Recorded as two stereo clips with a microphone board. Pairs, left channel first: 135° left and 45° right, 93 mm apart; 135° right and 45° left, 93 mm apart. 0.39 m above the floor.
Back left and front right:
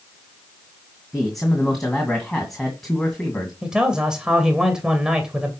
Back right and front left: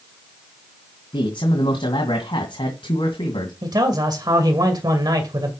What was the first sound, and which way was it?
A man speaking, 140° right.